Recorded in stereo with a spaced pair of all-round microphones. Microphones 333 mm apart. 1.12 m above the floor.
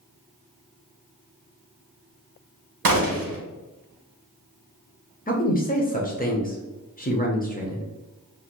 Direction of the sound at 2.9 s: 80° right.